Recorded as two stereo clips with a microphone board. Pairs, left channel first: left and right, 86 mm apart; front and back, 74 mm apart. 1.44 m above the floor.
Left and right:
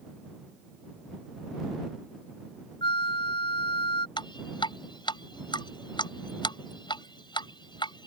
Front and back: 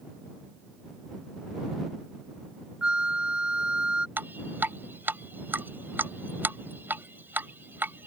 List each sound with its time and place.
2.8 s a flute: 105° left
4.2 s dripping: 115° left